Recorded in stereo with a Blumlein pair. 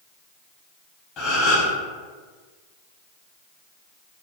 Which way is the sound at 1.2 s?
35° left.